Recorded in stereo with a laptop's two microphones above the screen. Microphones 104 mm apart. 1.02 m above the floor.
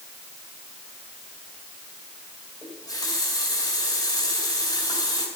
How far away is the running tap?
About 2.5 m.